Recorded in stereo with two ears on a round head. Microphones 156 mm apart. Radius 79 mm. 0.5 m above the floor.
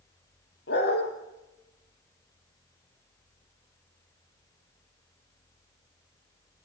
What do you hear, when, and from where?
0.7 s a dog barking: 60° left (ahead or behind), 5 m